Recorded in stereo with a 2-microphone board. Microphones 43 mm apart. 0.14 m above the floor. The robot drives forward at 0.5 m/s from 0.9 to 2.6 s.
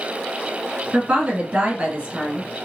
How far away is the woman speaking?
About 1.5 m.